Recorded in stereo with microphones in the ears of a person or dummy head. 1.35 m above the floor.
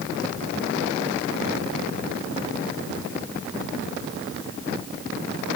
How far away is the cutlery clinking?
I don't hear cutlery clinking.